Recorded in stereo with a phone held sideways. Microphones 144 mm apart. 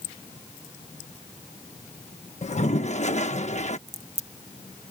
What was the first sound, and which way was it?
A toilet flushing, 55° left (ahead or behind).